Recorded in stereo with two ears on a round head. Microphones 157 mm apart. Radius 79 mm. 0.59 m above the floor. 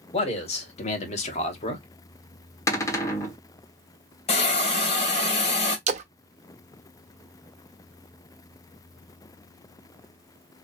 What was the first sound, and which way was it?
A man speaking, 35° left (ahead or behind).